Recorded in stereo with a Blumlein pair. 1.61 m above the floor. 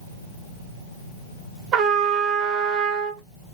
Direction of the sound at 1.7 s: 35° right.